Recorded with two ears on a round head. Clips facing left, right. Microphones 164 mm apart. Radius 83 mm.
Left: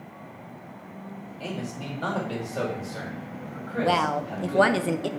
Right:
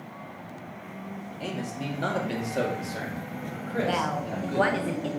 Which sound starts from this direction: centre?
A man speaking, at 1.4 s.